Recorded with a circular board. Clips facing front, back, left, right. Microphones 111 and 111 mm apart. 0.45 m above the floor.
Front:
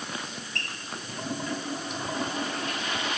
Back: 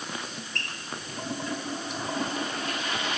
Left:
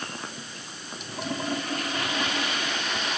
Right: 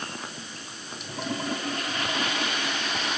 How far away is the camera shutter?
I don't hear a camera shutter.